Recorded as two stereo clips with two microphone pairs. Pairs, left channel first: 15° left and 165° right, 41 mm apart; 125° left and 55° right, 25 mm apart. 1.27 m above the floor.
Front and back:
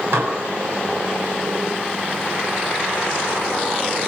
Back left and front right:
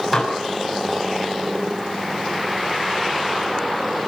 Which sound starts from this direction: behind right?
Dishes clattering, at 0.1 s.